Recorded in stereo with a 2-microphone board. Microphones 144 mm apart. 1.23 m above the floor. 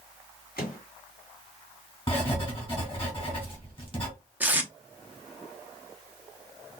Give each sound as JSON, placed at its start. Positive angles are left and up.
{"t": 0.6, "sound": "a microwave", "side_deg": 90, "distance_m": 1.9}
{"t": 2.1, "sound": "writing", "side_deg": 35, "distance_m": 2.0}
{"t": 4.4, "sound": "tape being pulled", "side_deg": -10, "distance_m": 0.7}